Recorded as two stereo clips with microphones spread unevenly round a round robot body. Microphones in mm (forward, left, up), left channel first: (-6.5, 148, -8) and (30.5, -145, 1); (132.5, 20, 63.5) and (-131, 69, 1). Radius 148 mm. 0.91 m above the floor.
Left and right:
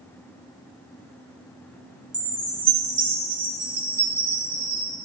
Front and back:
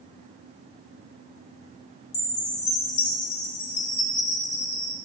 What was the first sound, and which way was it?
A chime, straight ahead.